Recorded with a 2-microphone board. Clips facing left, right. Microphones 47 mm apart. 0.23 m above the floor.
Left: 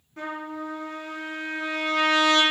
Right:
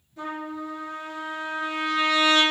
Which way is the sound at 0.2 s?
50° left (ahead or behind).